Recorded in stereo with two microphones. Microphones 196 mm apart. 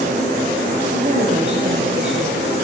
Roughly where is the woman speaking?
Right.